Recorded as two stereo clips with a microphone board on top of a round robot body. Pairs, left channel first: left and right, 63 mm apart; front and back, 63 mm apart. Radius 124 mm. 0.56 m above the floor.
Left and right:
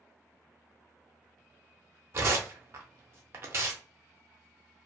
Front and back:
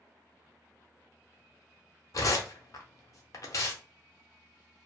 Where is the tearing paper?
40° right, 0.6 m.